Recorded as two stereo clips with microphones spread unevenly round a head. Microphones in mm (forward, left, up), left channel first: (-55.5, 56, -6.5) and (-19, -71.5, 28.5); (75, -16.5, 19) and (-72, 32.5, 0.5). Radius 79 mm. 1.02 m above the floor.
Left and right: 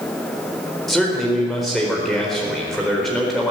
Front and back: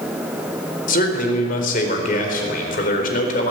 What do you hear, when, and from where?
0.9 s a man speaking: 20° left, 4.5 m